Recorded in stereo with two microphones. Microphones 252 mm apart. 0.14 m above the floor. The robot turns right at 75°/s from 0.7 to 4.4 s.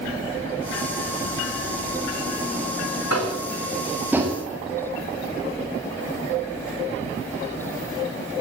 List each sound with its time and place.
3.1 s tapping: 70° left (ahead or behind), 4.5 m; by 4.4 s 25° right (ahead or behind), 4.5 m